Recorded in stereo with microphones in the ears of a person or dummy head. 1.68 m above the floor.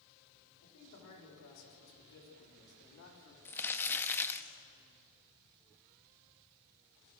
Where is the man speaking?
85° left, 7 m; by 3.4 s 80° left, 5.5 m.